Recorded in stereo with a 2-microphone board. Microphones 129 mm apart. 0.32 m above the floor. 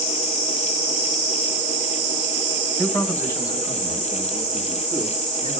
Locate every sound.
2.8 s a man speaking: centre (ahead or behind), 1.5 m; by 5.6 s 60° left (ahead or behind), 3.5 m